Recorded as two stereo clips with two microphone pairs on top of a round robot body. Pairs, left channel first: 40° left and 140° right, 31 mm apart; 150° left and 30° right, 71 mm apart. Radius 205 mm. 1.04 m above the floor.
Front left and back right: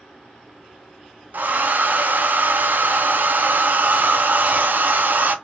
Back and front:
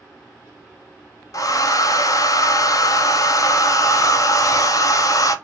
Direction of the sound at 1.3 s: 170° right.